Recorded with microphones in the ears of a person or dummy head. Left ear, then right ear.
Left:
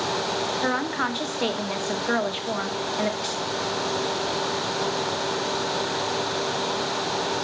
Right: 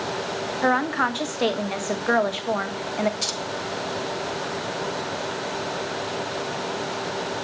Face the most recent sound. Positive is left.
turn(degrees=-65)  # may be behind; listen again after turning